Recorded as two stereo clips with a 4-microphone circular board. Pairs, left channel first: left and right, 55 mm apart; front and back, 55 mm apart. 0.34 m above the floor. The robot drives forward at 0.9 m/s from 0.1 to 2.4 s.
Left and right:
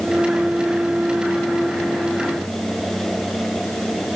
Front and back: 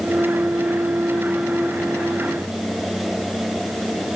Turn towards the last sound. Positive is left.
No sound to turn to.